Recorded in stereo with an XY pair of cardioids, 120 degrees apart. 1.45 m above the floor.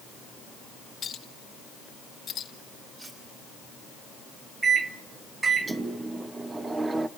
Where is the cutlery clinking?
35° right, 9.5 m.